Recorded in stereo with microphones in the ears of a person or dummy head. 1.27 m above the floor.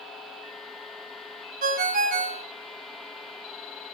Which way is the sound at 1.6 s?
45° right (ahead or behind).